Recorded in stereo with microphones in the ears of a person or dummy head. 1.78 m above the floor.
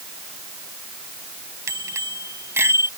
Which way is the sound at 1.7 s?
15° right (ahead or behind).